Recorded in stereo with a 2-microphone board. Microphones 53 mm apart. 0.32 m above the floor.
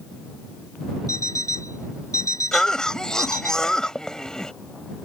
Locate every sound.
1.1 s an alarm clock: 75° left (ahead or behind)
2.5 s a cough: 15° left (ahead or behind)